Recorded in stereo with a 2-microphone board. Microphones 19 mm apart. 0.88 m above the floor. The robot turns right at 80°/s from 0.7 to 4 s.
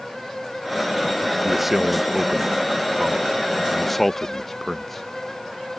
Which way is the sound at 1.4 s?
Centre (ahead or behind).